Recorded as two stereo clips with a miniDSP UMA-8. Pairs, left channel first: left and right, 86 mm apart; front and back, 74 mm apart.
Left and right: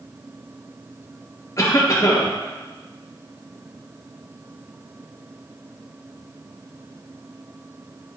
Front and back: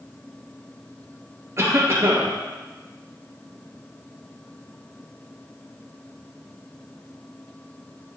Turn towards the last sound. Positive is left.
turn(degrees=135)